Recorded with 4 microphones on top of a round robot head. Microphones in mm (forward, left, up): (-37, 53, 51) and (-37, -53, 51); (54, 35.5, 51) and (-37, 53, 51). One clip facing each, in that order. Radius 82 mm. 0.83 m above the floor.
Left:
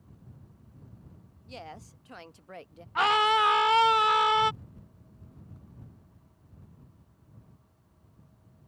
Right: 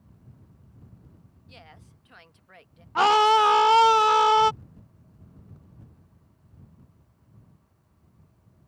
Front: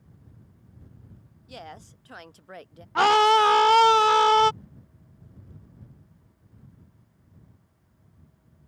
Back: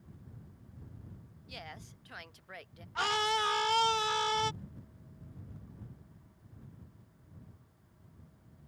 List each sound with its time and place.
1.5 s a woman speaking: 40° left
3.0 s a scream: 35° right